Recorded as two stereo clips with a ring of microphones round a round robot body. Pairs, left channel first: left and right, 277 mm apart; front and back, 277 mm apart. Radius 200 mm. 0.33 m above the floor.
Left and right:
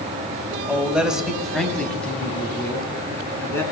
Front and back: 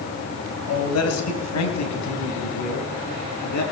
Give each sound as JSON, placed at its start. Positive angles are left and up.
{"t": 0.7, "sound": "a man speaking", "azimuth_deg": -5, "distance_m": 2.5}